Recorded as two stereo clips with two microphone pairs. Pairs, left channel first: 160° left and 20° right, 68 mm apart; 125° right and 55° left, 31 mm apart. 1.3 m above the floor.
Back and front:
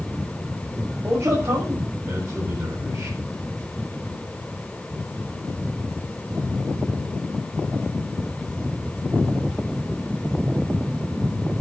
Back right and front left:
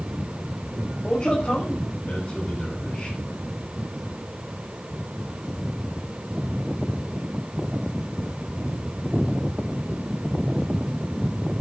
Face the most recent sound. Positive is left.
turn(degrees=-65)